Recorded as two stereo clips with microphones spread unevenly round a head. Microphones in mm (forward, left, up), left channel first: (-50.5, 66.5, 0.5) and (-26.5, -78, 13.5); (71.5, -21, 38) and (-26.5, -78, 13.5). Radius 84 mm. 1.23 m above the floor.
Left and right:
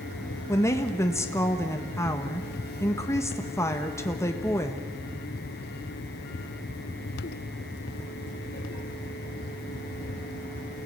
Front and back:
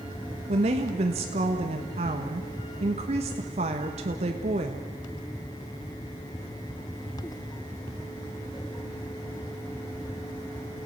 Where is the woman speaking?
170° left, 1.4 m.